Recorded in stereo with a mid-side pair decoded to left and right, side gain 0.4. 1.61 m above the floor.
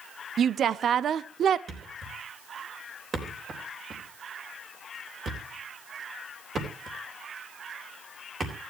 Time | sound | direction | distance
0.4 | a woman speaking | 65° right | 0.5 m
1.7 | a thud | 55° right | 3.5 m